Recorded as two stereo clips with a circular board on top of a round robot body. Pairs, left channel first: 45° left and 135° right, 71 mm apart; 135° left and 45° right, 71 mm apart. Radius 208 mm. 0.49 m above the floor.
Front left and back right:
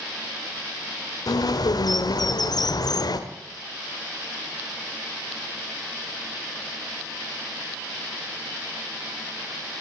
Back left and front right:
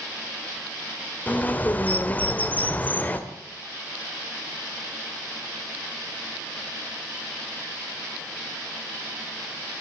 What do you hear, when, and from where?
1.3 s a bird: 70° left, 1.7 m